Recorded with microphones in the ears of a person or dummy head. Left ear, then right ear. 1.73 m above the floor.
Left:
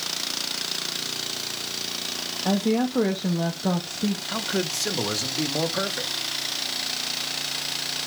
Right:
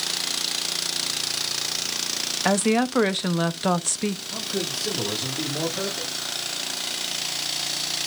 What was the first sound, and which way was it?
A woman speaking, 50° right (ahead or behind).